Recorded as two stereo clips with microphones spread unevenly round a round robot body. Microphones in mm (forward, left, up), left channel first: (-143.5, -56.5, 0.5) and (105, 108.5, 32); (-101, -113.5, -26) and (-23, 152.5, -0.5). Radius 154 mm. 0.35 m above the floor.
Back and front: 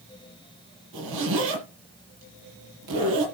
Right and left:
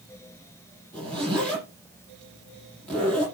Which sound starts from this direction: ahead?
A zipper, at 0.9 s.